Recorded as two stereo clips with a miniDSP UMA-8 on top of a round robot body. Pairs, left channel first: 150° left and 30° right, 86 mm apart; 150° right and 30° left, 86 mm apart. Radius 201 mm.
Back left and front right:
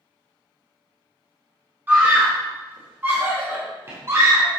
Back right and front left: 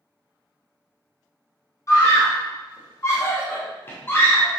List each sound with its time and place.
1.9 s a scream: 95° right, 4 m; by 4.5 s 85° right, 2.5 m